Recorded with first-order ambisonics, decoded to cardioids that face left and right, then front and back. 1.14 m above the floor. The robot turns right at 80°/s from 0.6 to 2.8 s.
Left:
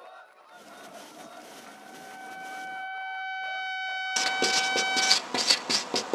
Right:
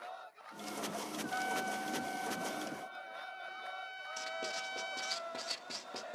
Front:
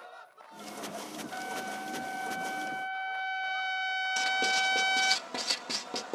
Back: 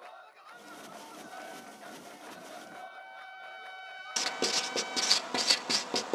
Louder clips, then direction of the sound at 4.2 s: Left 15 dB, front 2 dB; 110° left.